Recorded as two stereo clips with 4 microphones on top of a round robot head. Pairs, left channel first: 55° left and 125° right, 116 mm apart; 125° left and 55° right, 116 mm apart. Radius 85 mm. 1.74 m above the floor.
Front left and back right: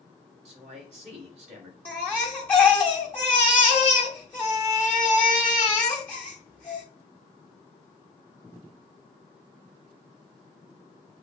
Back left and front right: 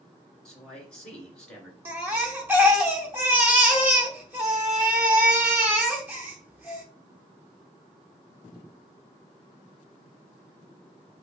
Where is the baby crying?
5° right, 0.6 m.